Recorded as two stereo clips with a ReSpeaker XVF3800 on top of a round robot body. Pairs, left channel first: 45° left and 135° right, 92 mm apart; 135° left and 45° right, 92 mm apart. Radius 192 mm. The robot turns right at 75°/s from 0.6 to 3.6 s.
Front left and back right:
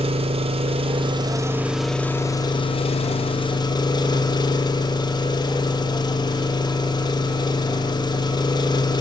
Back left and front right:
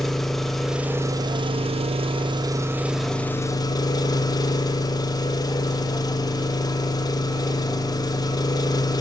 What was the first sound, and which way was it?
An engine running, 140° right.